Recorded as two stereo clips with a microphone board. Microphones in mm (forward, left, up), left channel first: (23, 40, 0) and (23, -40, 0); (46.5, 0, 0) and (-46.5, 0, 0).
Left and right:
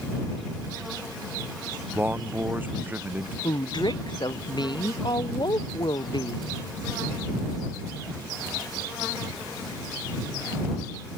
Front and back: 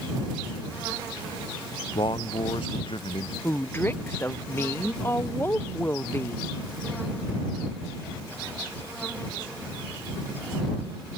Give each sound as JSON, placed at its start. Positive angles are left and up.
{"t": 1.9, "sound": "a man speaking", "azimuth_deg": -30}
{"t": 3.4, "sound": "a woman speaking", "azimuth_deg": 65}